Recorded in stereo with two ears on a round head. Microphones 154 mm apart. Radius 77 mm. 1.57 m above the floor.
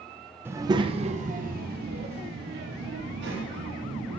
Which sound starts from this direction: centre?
A child speaking, at 0.5 s.